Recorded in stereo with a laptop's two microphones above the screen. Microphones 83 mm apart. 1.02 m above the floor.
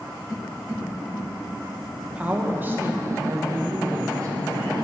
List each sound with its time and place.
2.0 s a woman speaking: 15° right (ahead or behind), 1.1 m; by 4.4 s 40° right (ahead or behind), 1.1 m